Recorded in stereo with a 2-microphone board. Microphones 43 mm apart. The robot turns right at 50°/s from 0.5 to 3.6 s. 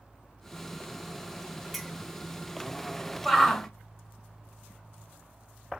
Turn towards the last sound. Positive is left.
turn(degrees=10)  # may be behind; listen again after turning